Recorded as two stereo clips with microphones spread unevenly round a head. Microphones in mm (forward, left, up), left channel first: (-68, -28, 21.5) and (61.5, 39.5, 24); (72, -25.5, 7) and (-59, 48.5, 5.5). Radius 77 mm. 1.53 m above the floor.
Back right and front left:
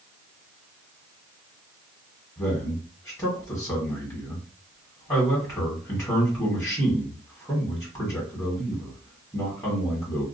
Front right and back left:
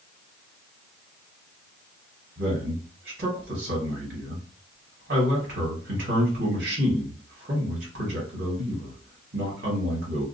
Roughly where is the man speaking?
Behind left.